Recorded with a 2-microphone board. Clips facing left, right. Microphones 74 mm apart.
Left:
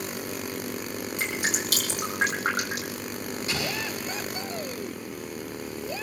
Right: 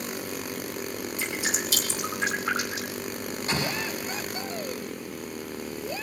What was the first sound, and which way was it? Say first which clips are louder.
Dripping: left 2 dB; 65° left (ahead or behind).